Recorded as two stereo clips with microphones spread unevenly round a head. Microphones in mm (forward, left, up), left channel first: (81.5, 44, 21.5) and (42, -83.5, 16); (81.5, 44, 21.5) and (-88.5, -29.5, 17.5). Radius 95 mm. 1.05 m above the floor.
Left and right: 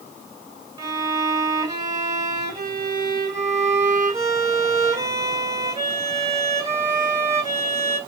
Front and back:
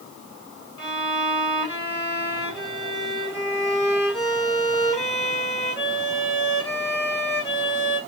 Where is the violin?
40° right, 2.5 m.